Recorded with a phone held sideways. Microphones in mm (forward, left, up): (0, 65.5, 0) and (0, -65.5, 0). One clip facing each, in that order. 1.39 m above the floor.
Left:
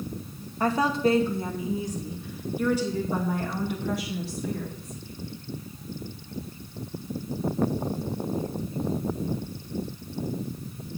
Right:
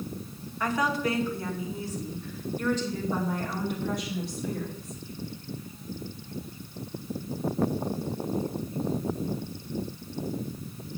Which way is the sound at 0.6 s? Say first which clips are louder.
Left 4 dB; 35° left (ahead or behind).